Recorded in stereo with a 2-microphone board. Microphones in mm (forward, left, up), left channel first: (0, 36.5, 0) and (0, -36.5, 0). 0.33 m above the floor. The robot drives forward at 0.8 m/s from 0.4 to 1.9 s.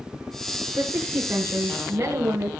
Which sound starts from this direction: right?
A woman speaking, at 0.8 s.